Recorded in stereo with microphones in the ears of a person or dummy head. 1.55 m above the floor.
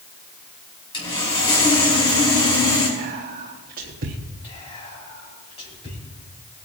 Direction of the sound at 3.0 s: 45° right (ahead or behind).